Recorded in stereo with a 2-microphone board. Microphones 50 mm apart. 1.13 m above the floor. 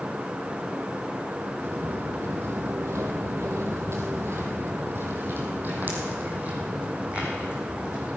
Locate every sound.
1.6 s footsteps: 55° right (ahead or behind), 3 m; by 8.1 s 20° right (ahead or behind), 5 m